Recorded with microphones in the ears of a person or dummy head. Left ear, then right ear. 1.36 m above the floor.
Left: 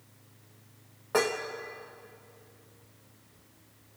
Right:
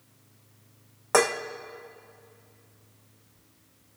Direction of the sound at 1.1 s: 45° right (ahead or behind).